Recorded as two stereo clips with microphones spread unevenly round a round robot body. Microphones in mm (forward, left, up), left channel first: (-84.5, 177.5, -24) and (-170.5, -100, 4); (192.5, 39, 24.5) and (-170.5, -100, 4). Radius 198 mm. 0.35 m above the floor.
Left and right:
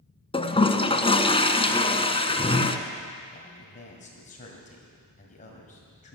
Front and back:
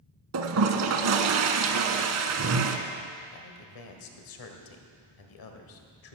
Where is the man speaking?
15° left, 1.7 m.